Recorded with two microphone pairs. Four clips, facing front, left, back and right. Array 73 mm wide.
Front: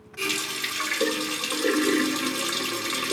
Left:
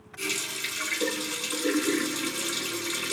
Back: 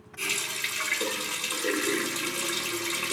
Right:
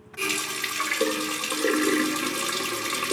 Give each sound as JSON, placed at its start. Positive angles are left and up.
{"t": 0.2, "sound": "a running tap", "azimuth_deg": -70, "distance_m": 1.0}